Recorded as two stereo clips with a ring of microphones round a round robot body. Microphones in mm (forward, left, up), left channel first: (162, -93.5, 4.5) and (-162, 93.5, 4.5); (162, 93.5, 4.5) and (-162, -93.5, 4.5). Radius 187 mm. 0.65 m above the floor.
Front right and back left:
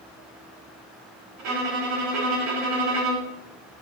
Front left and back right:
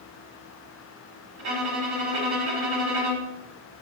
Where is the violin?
175° right, 1.8 m.